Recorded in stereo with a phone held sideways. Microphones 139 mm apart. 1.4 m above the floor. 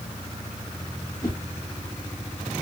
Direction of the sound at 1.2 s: 25° left (ahead or behind).